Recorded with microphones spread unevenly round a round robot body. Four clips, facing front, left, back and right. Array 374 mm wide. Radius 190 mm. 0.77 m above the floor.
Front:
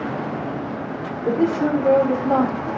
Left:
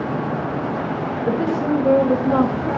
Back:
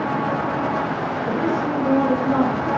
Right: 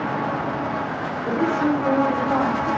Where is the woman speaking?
Straight ahead, 5 m.